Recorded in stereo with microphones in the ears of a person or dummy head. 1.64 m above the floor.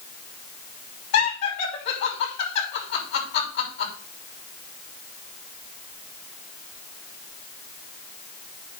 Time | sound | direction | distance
1.1 | laughter | 55° left (ahead or behind) | 6 m